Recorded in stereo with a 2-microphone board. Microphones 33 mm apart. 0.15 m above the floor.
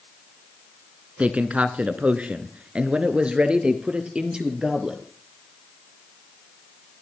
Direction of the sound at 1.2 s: 45° right (ahead or behind).